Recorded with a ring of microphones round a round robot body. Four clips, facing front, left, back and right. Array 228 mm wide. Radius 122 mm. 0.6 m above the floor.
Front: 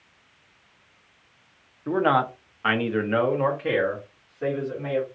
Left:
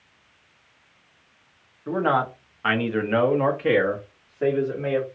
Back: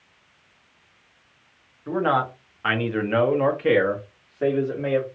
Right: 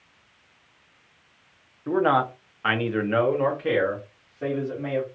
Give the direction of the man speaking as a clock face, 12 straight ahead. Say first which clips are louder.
Right 1 dB, front 1 dB; 1 o'clock.